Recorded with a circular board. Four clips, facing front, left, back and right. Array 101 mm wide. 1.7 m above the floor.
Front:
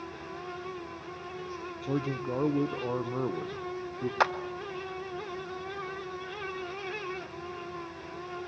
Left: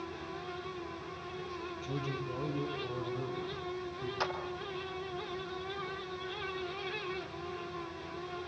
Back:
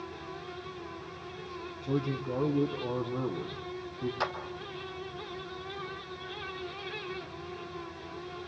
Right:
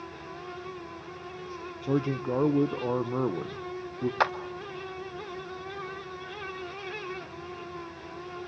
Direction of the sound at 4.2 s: 50° right.